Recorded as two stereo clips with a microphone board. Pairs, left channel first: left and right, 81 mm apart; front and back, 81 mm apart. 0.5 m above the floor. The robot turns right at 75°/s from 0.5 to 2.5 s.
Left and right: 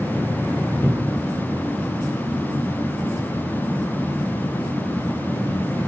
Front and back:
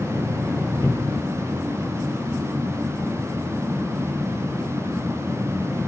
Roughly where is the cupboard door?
Ahead right.